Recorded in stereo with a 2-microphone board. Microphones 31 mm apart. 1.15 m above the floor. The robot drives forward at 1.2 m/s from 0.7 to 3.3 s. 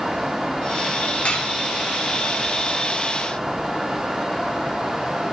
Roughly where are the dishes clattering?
Left.